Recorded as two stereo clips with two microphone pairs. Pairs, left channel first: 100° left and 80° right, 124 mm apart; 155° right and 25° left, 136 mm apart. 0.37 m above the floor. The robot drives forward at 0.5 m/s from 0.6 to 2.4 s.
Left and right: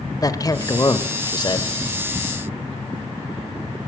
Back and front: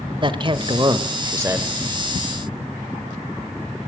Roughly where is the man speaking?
Ahead left.